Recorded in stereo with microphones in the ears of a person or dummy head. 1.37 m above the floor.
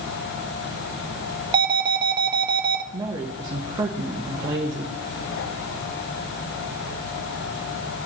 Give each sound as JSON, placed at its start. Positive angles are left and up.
{"t": 1.5, "sound": "an alarm", "side_deg": -25, "distance_m": 1.3}
{"t": 2.9, "sound": "a woman speaking", "side_deg": -20, "distance_m": 1.1}